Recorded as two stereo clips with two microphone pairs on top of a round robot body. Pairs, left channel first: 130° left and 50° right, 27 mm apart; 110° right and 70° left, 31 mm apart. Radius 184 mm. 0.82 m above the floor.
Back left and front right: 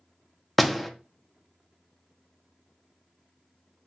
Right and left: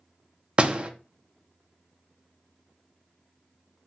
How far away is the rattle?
No rattle in this recording.